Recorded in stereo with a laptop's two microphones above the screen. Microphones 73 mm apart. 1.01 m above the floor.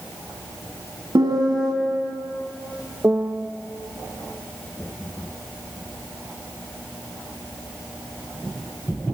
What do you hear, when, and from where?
1.1 s a piano: 75° right (ahead or behind), 3 m
3.0 s a piano: 25° right (ahead or behind), 0.7 m